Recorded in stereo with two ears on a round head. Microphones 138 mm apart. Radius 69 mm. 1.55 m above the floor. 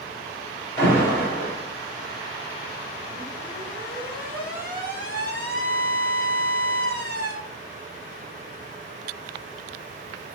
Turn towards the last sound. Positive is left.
turn(degrees=15)  # may be behind; listen again after turning